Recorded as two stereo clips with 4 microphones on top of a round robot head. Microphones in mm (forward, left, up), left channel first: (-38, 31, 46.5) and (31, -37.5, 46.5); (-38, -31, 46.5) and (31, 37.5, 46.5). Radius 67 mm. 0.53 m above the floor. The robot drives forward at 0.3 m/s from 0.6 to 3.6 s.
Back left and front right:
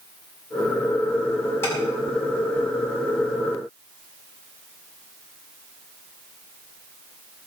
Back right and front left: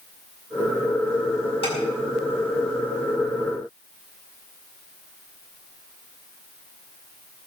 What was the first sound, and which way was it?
Tapping, 160° right.